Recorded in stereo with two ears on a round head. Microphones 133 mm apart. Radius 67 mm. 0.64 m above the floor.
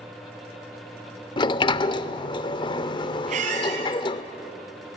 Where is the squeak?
50° right (ahead or behind), 5 m.